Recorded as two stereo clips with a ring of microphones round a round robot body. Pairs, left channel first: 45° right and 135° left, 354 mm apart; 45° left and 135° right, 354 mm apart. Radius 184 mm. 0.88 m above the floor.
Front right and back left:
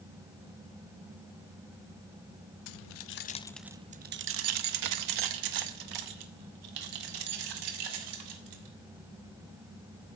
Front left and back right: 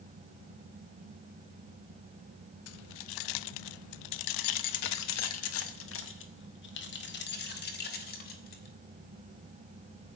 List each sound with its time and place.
2.7 s keys jangling: 10° right, 0.6 m; by 8.8 s 110° left, 3 m